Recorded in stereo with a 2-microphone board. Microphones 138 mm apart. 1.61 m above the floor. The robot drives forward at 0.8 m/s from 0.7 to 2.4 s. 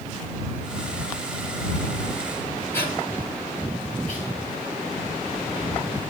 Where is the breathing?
15° left (ahead or behind), 5 m.